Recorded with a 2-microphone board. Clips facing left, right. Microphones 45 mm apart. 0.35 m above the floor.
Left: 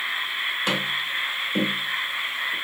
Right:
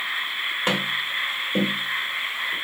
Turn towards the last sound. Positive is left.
turn(degrees=-35)  # may be behind; listen again after turning